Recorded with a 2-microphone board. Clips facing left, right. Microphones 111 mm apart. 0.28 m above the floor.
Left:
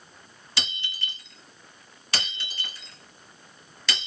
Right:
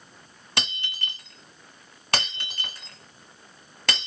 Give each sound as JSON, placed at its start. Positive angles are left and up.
{"t": 0.6, "sound": "breaking glass", "side_deg": -55, "distance_m": 1.3}